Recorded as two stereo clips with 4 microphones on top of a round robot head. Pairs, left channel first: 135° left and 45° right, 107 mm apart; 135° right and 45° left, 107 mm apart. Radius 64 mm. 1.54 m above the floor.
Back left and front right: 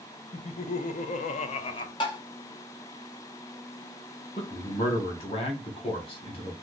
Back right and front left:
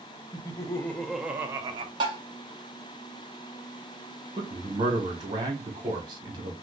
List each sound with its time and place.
0.3 s laughter: 165° left, 0.8 m; by 1.9 s 85° left, 0.6 m
2.0 s tapping: 90° left, 1.1 m
4.4 s a man speaking: 95° left, 1.2 m